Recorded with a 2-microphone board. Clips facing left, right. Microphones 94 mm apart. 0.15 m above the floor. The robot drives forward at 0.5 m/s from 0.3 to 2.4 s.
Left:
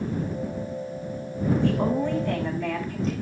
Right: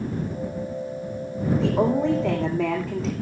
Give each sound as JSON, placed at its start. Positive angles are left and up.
{"t": 1.6, "sound": "a woman speaking", "side_deg": -80, "distance_m": 9.0}